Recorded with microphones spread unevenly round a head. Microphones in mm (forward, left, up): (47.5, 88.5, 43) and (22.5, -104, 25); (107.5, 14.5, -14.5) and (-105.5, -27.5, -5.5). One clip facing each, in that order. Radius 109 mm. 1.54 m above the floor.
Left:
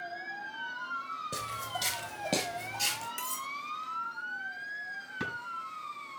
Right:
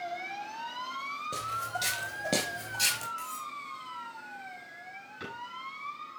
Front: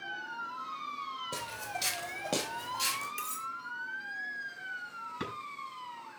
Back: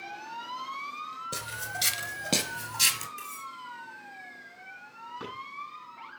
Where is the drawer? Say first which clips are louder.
Left 4 dB, front 2 dB; 60° left, 5.5 m.